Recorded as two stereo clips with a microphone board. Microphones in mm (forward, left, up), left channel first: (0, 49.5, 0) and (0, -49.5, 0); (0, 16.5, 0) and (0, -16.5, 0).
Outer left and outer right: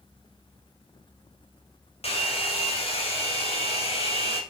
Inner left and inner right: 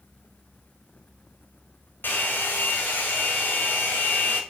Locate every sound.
2.0 s a hair dryer: 80° left, 2.5 m